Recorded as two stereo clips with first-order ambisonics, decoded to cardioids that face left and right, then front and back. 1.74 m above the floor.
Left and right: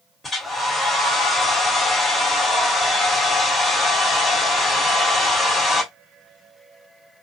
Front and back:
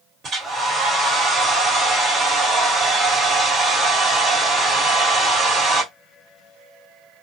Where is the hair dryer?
155° left, 1.4 m.